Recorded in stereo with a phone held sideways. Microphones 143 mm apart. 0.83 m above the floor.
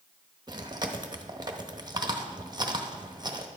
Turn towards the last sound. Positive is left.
turn(degrees=-30)  # may be behind; listen again after turning